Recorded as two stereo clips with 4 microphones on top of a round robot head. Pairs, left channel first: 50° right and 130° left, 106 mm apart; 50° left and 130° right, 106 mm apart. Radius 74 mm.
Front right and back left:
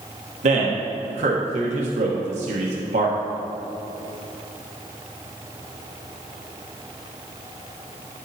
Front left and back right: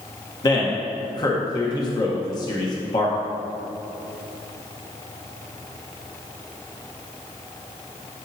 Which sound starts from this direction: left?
A man speaking, at 0.4 s.